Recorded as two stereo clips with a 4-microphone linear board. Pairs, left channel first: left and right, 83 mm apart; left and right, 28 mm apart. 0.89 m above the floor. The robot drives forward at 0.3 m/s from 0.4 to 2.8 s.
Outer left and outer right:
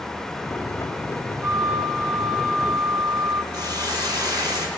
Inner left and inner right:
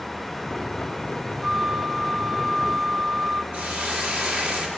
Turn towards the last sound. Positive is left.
turn(degrees=-55)  # may be behind; listen again after turning